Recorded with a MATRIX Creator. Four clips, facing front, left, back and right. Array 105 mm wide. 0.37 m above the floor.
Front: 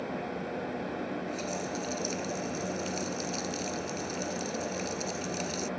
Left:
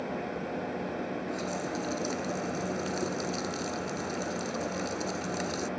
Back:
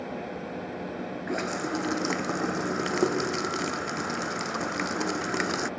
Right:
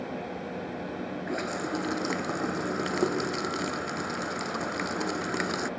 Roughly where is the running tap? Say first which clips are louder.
Right 2 dB, back 5 dB; behind right.